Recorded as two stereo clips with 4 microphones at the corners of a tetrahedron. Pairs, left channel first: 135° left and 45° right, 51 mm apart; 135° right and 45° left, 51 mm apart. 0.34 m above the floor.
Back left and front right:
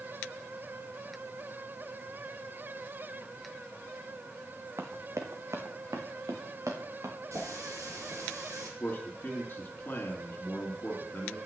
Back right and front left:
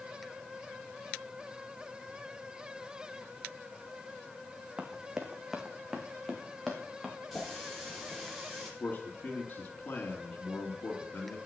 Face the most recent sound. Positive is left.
turn(degrees=-175)